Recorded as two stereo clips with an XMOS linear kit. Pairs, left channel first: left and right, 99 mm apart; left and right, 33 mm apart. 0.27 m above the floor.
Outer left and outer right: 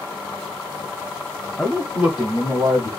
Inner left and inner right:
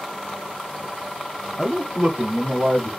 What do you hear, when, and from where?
1.6 s a man speaking: 5° left (ahead or behind), 1.2 m; by 2.9 s 35° right (ahead or behind), 1.5 m